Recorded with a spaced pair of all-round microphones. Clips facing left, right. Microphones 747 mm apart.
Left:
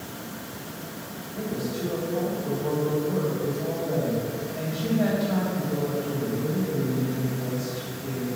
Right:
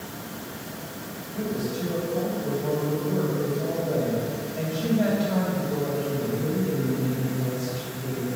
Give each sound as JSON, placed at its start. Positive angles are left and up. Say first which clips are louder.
{"t": 1.3, "sound": "a woman speaking", "louder": "right 1 dB", "side_deg": -50, "distance_m": 3.0}